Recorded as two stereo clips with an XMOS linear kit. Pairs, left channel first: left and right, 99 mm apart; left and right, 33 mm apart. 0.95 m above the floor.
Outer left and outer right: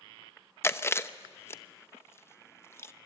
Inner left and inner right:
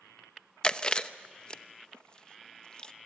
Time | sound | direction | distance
0.6 | chewing | 25° left (ahead or behind) | 0.8 m